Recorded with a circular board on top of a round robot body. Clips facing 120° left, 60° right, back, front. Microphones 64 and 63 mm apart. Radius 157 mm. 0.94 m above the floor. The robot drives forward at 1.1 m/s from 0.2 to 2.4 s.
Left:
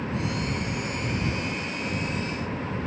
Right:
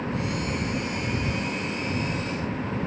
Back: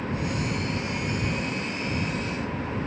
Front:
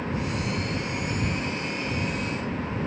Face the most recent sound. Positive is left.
No sound to turn to.